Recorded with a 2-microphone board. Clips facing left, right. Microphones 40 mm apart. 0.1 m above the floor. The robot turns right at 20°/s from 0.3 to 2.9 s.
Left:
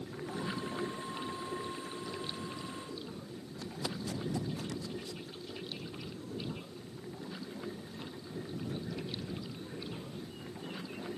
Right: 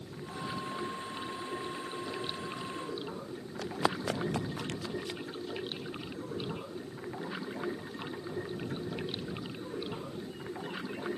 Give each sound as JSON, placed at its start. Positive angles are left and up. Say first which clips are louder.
{"t": 0.0, "sound": "running water", "louder": "left 1 dB", "azimuth_deg": 165}
{"t": 3.6, "sound": "running footsteps", "louder": "right 8 dB", "side_deg": -90}